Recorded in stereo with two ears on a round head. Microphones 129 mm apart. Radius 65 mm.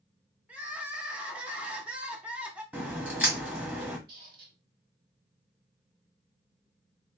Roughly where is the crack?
Centre.